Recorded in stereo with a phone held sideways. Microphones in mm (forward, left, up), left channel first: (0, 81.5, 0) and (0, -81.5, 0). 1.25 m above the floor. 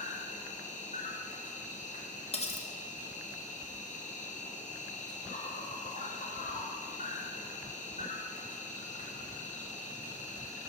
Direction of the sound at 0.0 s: 50° left (ahead or behind).